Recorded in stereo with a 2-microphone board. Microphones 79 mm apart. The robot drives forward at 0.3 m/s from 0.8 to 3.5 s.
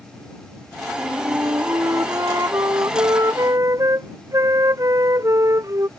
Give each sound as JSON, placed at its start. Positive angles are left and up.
{"t": 1.0, "sound": "a flute", "side_deg": -40}